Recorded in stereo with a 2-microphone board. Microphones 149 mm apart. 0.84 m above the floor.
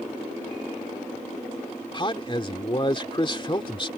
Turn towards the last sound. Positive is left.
turn(degrees=35)  # may be behind; listen again after turning